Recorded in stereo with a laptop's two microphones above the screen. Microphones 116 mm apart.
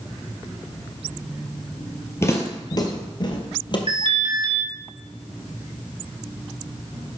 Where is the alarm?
50° right (ahead or behind), 1.9 m.